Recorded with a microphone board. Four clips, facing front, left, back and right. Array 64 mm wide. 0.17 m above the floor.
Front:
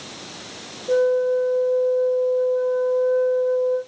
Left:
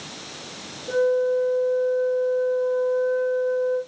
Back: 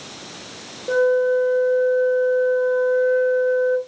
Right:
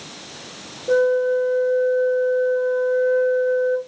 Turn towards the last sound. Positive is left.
turn(degrees=-145)